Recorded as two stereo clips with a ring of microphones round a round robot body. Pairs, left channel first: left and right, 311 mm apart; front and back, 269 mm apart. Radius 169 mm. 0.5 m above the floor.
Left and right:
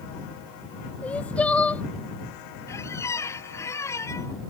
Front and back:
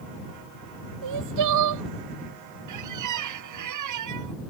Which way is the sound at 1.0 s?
175° left.